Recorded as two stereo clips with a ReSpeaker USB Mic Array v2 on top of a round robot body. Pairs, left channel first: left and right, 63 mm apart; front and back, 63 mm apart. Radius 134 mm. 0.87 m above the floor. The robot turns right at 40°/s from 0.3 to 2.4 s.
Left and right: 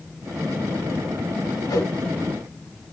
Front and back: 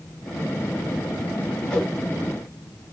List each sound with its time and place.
1.7 s a whoosh: 75° left, 3 m; by 1.9 s 85° left, 3 m